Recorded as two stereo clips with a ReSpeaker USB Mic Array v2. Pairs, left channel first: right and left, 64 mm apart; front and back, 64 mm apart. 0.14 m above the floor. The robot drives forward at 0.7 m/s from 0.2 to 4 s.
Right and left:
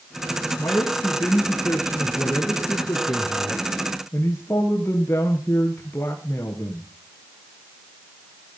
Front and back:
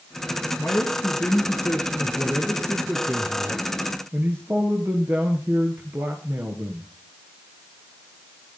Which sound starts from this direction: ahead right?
A man speaking, at 0.6 s.